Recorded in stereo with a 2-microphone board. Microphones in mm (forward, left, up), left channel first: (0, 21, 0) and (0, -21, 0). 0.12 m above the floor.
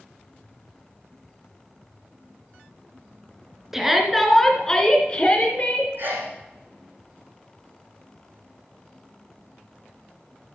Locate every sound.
3.7 s a shout: 10° right (ahead or behind), 2.0 m; by 5.9 s 40° left (ahead or behind), 2.5 m
6.0 s a sneeze: 55° right (ahead or behind), 6 m